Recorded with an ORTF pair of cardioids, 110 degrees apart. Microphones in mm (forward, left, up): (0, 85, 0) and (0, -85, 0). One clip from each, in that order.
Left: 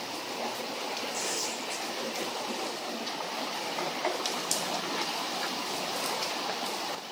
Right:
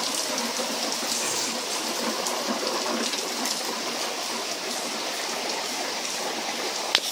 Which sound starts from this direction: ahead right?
Tearing paper, at 1.1 s.